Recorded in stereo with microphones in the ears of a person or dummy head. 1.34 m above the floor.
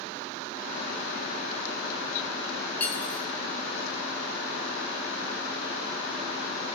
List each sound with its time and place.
2.8 s cutlery clinking: 15° left (ahead or behind), 3 m